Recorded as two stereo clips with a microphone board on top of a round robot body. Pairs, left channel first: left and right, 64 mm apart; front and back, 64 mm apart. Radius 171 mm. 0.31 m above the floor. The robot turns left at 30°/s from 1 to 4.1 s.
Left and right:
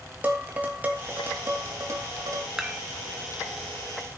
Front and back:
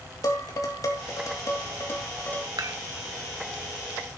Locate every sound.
0.2 s dishes clattering: 25° right, 2.5 m; by 2.5 s 70° right, 2.5 m
2.6 s dishes clattering: 170° right, 1.6 m; by 2.8 s 175° right, 1.6 m